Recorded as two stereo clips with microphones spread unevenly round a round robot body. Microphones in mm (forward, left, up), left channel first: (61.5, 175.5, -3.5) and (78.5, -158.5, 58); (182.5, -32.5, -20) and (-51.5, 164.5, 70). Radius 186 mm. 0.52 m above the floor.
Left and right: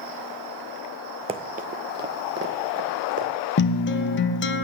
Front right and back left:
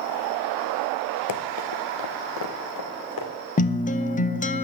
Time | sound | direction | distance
1.3 | running footsteps | 30° right | 0.6 m
3.6 | a guitar | 30° left | 0.7 m